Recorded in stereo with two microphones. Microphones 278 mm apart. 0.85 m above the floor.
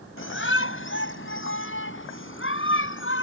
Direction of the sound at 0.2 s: 45° left (ahead or behind).